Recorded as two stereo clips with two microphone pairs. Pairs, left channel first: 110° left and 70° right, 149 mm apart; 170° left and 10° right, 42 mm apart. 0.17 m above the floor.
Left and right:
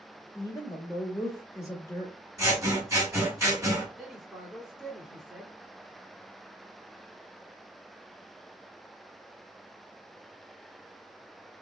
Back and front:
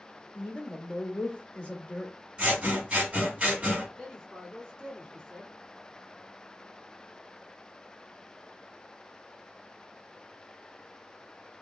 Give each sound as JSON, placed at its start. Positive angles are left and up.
{"t": 0.3, "sound": "a woman speaking", "azimuth_deg": 150, "distance_m": 1.2}
{"t": 2.4, "sound": "scissors", "azimuth_deg": -25, "distance_m": 1.7}
{"t": 4.0, "sound": "a man speaking", "azimuth_deg": -160, "distance_m": 1.3}